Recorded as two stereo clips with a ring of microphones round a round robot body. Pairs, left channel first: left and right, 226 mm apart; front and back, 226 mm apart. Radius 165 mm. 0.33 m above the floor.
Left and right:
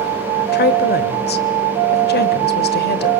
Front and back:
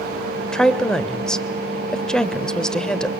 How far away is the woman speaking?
About 1.1 m.